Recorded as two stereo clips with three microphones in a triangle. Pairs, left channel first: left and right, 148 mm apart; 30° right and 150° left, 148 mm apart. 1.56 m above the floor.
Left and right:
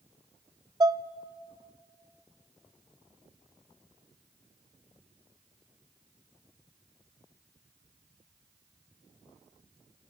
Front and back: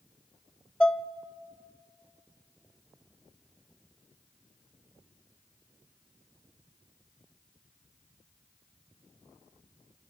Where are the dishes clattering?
110° right, 0.5 m.